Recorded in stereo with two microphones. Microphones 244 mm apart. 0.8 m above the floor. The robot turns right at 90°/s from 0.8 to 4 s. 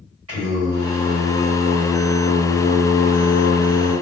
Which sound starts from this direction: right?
Singing, at 0.3 s.